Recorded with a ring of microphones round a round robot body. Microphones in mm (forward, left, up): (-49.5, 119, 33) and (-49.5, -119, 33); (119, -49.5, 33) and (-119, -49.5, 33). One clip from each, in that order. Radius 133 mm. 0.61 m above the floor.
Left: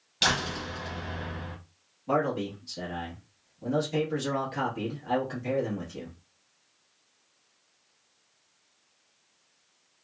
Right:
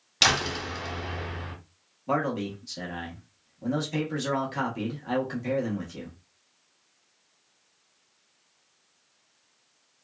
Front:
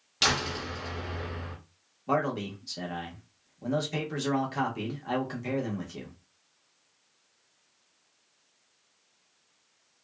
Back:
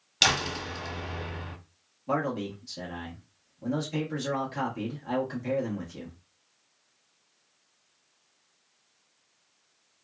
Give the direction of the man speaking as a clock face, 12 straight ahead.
1 o'clock.